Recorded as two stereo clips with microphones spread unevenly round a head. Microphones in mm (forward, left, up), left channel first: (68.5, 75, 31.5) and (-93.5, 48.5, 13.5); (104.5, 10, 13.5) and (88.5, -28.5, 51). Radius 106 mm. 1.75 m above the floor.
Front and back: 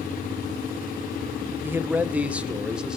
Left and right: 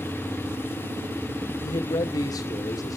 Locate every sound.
1.6 s a man speaking: 110° left, 0.9 m; by 3.0 s 100° left, 1.6 m